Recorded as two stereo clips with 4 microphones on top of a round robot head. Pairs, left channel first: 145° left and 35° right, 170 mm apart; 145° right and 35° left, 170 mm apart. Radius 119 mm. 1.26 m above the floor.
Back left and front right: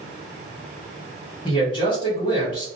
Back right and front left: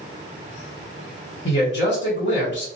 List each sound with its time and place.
1.4 s a man speaking: 160° right, 1.4 m